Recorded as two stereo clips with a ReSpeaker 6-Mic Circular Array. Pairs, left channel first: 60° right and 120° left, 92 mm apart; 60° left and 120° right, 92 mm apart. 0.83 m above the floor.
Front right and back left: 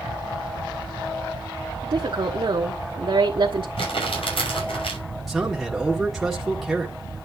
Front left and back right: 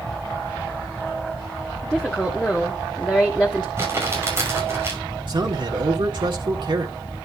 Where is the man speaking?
150° right, 1.6 m.